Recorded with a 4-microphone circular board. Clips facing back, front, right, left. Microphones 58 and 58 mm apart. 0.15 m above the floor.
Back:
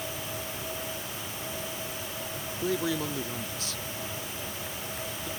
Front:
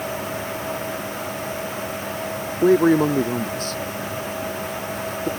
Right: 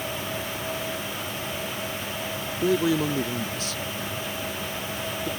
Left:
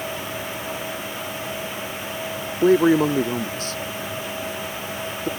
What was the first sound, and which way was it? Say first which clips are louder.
A man speaking: front 15 dB, left 7 dB; 45° left.